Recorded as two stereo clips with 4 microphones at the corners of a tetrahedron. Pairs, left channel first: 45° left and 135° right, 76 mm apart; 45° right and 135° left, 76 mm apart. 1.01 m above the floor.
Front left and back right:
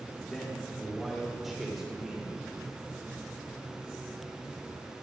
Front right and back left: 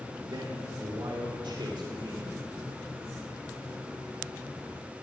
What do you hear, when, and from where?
0.3 s a man speaking: 125° left, 2 m; by 2.4 s 145° left, 3.5 m